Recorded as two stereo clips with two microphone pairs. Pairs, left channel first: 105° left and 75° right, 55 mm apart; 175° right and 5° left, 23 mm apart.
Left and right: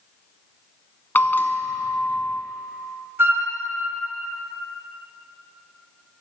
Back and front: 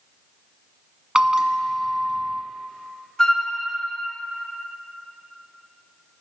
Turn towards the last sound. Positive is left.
turn(degrees=-115)